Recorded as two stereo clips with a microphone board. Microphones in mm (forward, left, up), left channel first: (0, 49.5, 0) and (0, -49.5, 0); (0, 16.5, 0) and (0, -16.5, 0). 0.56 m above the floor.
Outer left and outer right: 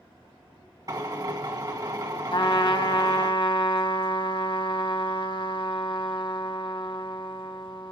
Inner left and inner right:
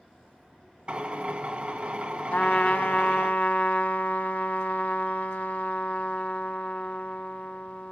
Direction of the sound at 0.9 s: 35° right (ahead or behind).